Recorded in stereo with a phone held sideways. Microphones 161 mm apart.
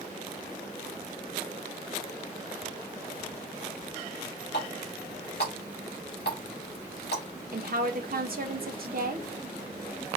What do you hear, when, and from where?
4.5 s a running tap: 90° left, 2.5 m
7.5 s a woman speaking: 65° right (ahead or behind), 1.1 m